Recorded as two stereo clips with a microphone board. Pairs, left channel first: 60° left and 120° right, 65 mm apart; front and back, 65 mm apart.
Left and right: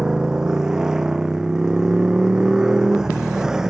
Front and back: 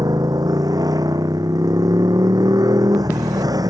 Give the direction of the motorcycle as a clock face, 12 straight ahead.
7 o'clock.